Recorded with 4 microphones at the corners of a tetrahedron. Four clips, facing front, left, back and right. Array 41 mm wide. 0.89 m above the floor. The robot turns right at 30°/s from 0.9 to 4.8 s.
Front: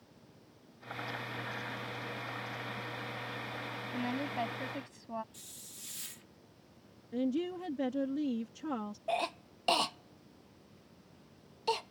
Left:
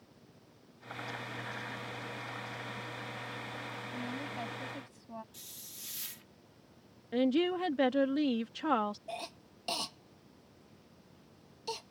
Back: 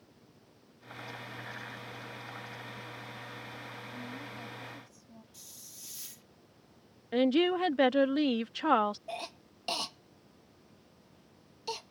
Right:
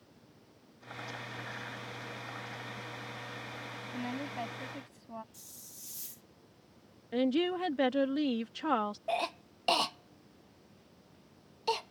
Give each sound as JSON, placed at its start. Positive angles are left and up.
{"t": 3.9, "sound": "a woman speaking", "azimuth_deg": -35}
{"t": 5.3, "sound": "a hiss", "azimuth_deg": 60}
{"t": 7.1, "sound": "a woman speaking", "azimuth_deg": 180}
{"t": 9.1, "sound": "a cough", "azimuth_deg": -55}